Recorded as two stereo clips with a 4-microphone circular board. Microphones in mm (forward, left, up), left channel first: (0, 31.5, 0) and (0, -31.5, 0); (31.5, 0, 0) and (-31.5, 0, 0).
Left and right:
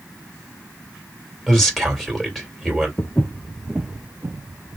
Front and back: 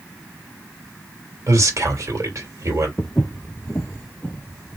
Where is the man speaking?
175° left, 1.9 m.